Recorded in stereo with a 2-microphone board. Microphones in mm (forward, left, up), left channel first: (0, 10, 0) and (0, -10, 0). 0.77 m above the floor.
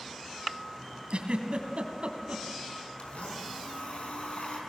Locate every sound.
1.1 s a giggle: 60° right (ahead or behind), 2.5 m
3.0 s a blender: 65° left (ahead or behind), 5.5 m